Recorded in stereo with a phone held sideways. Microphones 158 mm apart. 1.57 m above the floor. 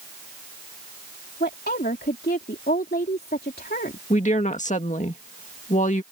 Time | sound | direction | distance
1.4 | a woman speaking | 80° left | ?
4.1 | a woman speaking | 50° left (ahead or behind) | ?